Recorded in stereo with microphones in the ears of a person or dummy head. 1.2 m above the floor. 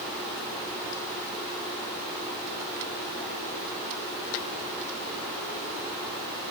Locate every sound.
Only background noise.